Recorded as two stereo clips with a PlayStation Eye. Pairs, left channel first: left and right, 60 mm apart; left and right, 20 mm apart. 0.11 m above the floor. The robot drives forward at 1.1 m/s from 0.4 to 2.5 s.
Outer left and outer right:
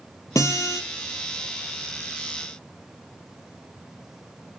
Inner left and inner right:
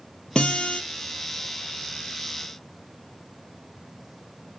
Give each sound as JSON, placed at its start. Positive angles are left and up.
{"t": 0.3, "sound": "a guitar", "side_deg": 60, "distance_m": 3.0}